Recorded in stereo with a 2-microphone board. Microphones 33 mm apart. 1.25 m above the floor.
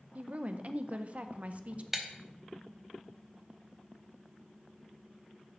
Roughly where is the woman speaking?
Right.